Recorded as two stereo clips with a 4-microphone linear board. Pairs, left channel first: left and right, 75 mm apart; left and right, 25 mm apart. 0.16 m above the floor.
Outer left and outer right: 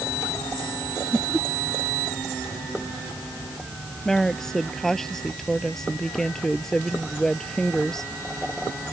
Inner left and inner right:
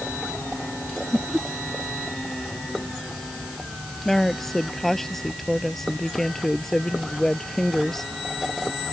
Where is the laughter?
5° left (ahead or behind).